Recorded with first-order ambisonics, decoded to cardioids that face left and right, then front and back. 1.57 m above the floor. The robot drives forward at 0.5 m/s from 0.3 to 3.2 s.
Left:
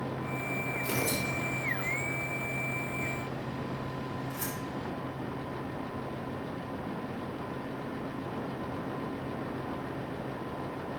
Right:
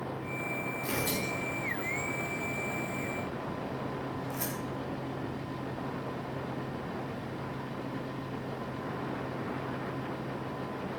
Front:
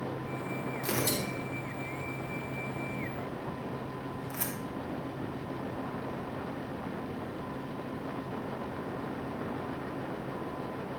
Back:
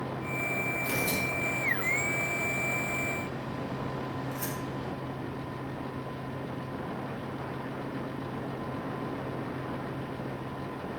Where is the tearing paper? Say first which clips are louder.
Even, back 3 dB; 15° right, 4.5 m; by 4.5 s 20° right, 3.5 m.